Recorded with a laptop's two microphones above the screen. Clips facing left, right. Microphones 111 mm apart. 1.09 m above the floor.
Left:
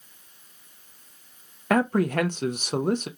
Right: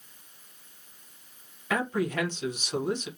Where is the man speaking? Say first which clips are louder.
Left 6 dB; 50° left (ahead or behind), 0.6 m.